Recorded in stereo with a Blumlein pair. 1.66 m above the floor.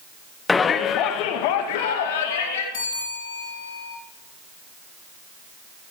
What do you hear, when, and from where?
0.5 s a shout: 10° left, 1.1 m; by 2.6 s 55° left, 3.5 m
2.7 s a bell: 60° left, 8 m